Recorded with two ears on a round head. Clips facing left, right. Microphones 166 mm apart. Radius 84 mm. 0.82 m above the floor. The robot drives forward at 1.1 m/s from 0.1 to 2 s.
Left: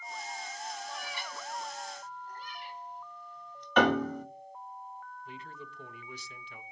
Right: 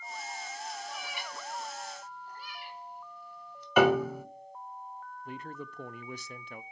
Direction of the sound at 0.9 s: 15° right (ahead or behind).